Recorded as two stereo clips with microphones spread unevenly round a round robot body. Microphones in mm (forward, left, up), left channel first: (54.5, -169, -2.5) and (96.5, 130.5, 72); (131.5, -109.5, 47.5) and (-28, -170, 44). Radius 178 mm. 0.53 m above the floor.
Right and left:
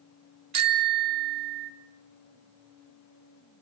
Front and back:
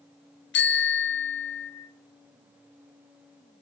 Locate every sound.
0.5 s a bicycle bell: 45° left, 3.5 m